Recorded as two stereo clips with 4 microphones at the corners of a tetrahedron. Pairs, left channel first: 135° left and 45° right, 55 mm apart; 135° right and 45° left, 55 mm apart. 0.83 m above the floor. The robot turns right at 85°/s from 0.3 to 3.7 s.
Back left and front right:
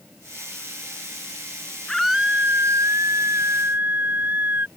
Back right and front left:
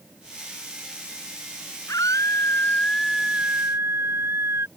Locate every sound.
1.9 s a scream: 145° right; by 4.7 s 10° left